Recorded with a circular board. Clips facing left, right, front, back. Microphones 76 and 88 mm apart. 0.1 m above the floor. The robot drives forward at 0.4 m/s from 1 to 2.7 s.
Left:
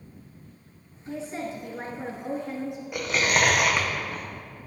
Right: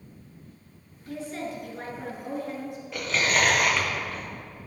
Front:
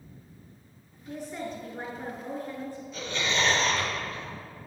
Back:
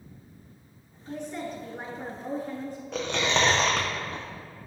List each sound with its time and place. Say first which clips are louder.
1.1 s a woman speaking: left 1 dB, back 1 dB; 70° left, 1.2 m; by 2.8 s 135° left, 1.3 m
2.9 s chewing: left 1 dB, back 4 dB; 165° left, 1.8 m